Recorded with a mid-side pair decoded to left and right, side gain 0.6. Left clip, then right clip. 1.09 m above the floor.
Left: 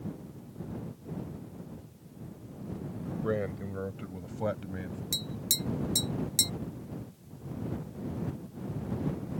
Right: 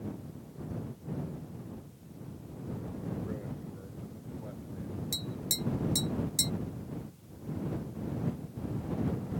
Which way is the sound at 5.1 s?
20° left.